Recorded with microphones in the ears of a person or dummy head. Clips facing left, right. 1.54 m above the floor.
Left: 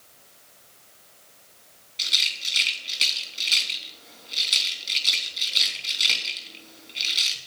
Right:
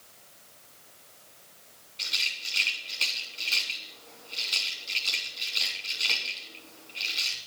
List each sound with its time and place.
2.0 s a rattle: 25° left (ahead or behind), 3.5 m